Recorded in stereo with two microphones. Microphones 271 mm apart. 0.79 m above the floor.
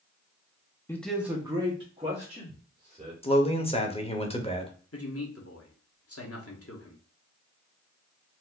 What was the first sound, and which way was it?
A man speaking, 10° left (ahead or behind).